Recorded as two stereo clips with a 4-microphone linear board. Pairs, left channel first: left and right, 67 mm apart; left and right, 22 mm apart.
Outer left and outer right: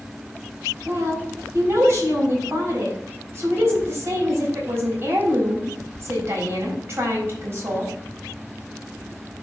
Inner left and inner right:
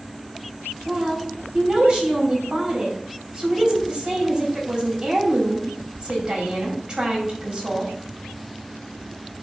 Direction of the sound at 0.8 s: 35° right (ahead or behind).